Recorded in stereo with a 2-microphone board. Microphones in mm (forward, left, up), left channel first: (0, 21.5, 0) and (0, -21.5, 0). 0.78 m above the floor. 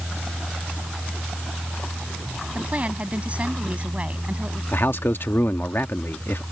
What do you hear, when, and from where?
2.5 s a woman speaking: 35° right (ahead or behind)
4.7 s a man speaking: 60° left (ahead or behind)